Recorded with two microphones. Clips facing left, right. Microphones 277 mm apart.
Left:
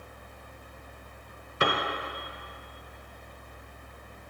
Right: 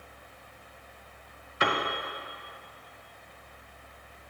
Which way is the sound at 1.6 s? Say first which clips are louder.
Left 1 dB; 50° left (ahead or behind).